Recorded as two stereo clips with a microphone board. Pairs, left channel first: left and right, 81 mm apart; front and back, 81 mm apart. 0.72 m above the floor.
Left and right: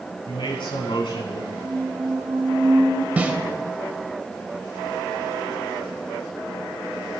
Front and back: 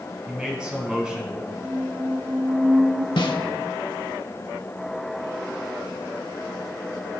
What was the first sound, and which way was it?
A man speaking, 100° left.